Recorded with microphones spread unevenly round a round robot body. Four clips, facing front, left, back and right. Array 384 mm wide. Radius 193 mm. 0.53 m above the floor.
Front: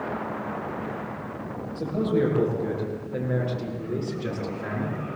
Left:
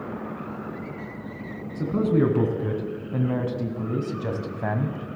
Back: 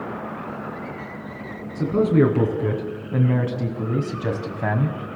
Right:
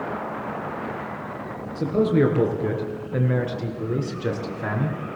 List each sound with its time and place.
1.8 s a man speaking: 155° left, 5.5 m; by 5.0 s straight behind, 3 m